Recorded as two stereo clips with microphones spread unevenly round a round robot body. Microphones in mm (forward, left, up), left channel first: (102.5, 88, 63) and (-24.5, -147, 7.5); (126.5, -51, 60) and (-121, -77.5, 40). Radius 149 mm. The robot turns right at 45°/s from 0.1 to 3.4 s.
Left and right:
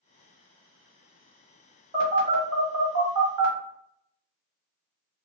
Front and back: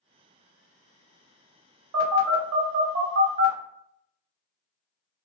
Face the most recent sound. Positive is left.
turn(degrees=-120)